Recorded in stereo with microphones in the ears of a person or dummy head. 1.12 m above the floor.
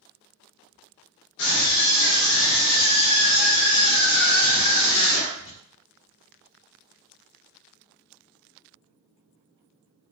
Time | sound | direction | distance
1.4 | a scream | 55° left (ahead or behind) | 2 m